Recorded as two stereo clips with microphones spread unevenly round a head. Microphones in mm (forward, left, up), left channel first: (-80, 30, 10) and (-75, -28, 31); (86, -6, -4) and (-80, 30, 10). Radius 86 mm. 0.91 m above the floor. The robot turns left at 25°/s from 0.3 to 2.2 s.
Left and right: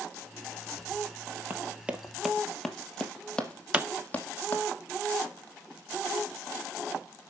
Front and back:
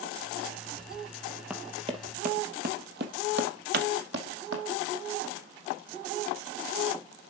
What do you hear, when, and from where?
1.5 s running footsteps: 115° right, 1.5 m; by 4.6 s 165° left, 3 m
3.7 s a pop: 170° right, 1.0 m